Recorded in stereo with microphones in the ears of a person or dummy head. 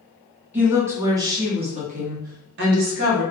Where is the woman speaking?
10° right (ahead or behind), 1.1 m; by 3.2 s 65° right (ahead or behind), 0.9 m.